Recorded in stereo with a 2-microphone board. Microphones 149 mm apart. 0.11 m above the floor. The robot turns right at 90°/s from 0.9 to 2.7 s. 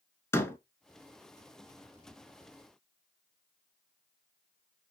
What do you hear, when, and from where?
0.3 s a door slam: 15° left (ahead or behind), 0.8 m